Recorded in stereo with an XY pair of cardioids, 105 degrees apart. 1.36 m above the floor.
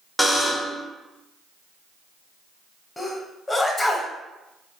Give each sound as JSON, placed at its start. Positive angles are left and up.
{"t": 0.2, "sound": "a buzzer", "azimuth_deg": 5, "distance_m": 0.6}
{"t": 3.0, "sound": "a sneeze", "azimuth_deg": 20, "distance_m": 0.7}